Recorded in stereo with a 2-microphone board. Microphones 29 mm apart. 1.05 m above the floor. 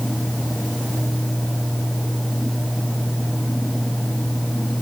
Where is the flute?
No flute in this recording.